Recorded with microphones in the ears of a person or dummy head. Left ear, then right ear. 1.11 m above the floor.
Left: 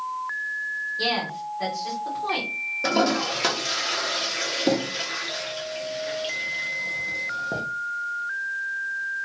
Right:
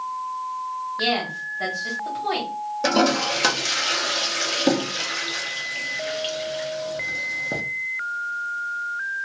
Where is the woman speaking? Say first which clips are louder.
Right 4 dB; 15° right (ahead or behind), 1.2 m.